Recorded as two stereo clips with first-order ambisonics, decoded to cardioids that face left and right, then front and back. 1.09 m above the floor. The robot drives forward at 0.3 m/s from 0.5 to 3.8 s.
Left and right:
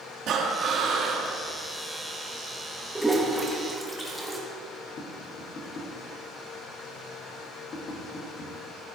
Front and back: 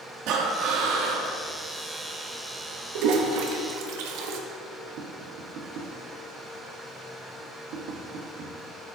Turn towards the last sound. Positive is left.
turn(degrees=145)